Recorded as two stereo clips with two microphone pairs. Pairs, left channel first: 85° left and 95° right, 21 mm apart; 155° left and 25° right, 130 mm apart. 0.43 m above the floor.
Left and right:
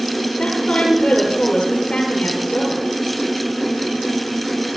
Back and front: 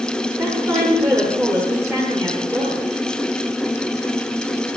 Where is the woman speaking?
45° left, 9.5 m.